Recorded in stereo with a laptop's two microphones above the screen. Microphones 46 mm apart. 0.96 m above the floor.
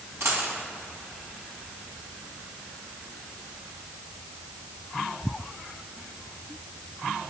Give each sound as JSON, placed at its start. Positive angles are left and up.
{"t": 0.2, "sound": "a dropped coin", "side_deg": -70, "distance_m": 2.5}